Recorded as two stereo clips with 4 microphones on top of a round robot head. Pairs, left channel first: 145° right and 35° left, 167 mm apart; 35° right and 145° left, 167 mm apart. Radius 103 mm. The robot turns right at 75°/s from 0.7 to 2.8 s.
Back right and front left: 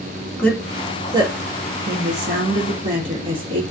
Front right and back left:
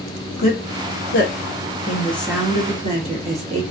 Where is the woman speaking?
65° right, 1.4 m; by 3.6 s 95° left, 1.4 m.